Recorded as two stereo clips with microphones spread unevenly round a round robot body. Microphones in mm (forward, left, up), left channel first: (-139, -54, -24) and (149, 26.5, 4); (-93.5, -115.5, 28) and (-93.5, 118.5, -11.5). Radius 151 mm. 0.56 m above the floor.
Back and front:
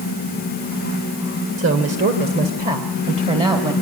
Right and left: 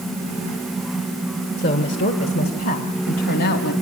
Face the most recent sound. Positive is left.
turn(degrees=-60)